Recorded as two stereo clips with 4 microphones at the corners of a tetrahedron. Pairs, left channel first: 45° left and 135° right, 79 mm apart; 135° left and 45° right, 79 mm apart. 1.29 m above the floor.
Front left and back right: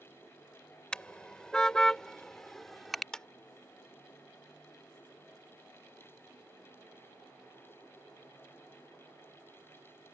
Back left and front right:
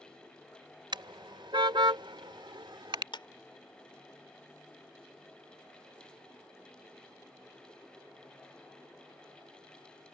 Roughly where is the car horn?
Ahead right.